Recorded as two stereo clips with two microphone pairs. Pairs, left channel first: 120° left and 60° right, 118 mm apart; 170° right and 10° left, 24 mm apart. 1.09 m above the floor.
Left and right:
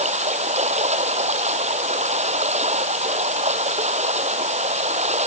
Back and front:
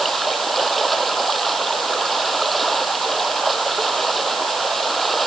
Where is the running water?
80° right.